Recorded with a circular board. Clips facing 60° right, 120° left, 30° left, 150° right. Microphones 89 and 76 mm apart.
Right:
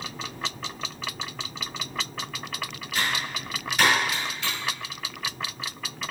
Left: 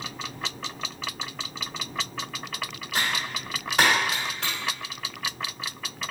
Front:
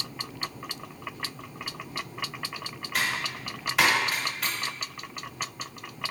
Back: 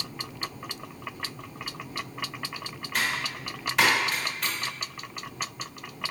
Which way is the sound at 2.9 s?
115° left.